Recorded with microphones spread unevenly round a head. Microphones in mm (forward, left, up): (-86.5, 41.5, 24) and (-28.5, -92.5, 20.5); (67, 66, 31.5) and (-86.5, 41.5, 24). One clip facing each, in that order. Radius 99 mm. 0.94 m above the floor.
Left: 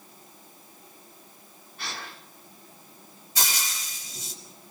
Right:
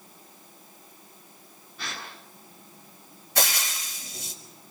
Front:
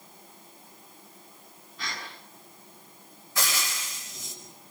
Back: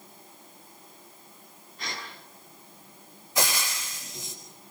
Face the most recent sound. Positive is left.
turn(degrees=-95)